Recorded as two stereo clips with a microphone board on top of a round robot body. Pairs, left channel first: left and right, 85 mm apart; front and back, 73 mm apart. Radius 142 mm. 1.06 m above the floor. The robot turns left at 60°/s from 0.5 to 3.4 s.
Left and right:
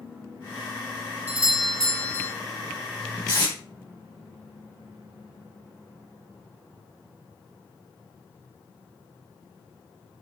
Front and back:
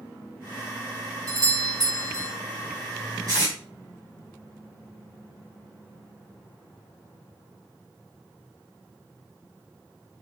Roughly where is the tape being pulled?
Behind left.